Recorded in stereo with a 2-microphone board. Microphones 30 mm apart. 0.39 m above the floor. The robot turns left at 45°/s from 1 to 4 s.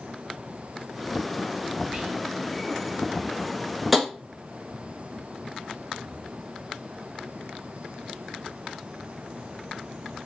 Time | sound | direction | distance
1.9 | whispering | 30° right (ahead or behind) | 1.0 m
3.9 | tapping | 5° right (ahead or behind) | 0.7 m